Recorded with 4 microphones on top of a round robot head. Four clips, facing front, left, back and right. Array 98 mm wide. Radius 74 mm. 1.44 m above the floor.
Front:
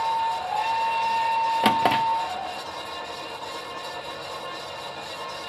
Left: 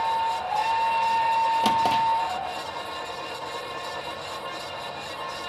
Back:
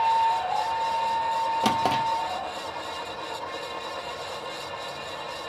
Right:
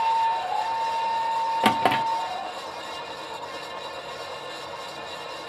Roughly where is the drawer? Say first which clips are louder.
Even, front 4 dB; ahead right.